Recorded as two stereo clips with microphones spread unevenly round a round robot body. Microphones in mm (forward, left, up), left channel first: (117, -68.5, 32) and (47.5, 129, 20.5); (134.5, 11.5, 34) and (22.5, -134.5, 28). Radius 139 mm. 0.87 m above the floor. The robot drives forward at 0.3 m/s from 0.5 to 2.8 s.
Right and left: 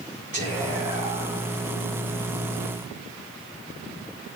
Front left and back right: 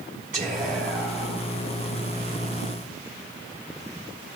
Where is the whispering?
175° left, 2.5 m.